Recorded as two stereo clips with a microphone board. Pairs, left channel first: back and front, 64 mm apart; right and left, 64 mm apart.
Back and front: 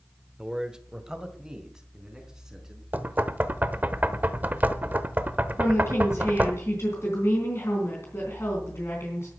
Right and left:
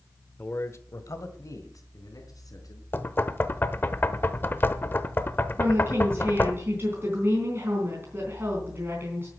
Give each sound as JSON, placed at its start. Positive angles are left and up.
{"t": 0.4, "sound": "a man speaking", "azimuth_deg": -65, "distance_m": 1.0}
{"t": 2.9, "sound": "knocking", "azimuth_deg": -50, "distance_m": 0.9}
{"t": 5.6, "sound": "a woman speaking", "azimuth_deg": 140, "distance_m": 3.5}